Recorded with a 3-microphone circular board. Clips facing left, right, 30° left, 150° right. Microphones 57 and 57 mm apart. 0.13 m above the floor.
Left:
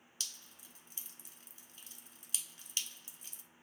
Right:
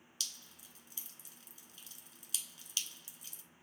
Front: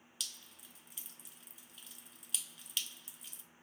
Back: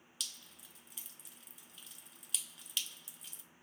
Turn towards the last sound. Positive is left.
turn(degrees=120)